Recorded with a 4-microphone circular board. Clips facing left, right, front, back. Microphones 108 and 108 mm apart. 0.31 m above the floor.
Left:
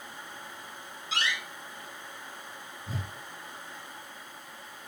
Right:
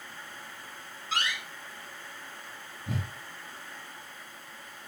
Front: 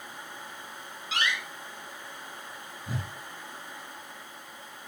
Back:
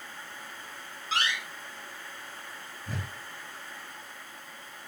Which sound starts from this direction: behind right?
A door slam, at 1.1 s.